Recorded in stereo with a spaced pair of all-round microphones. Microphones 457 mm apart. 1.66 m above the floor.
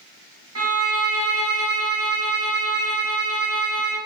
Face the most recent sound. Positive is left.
turn(degrees=-30)  # may be behind; listen again after turning